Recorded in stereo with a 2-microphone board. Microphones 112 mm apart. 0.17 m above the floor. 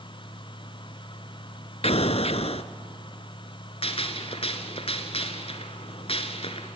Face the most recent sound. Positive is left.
turn(degrees=60)  # may be behind; listen again after turning